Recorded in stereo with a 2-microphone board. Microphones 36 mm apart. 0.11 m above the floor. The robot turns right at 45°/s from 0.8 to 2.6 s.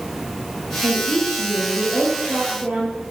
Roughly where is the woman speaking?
Behind right.